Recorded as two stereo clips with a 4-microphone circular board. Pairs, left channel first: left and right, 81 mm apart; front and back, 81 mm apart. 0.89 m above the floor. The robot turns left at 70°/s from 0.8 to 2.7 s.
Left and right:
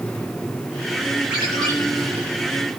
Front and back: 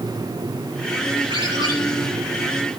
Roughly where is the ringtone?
Behind.